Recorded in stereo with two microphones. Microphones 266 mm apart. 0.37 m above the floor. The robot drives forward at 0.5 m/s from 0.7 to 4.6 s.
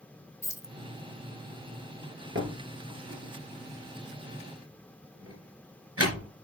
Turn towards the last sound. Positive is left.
turn(degrees=-60)  # may be behind; listen again after turning